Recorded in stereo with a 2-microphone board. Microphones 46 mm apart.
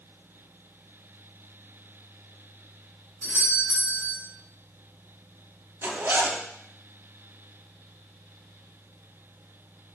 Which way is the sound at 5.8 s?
50° right (ahead or behind).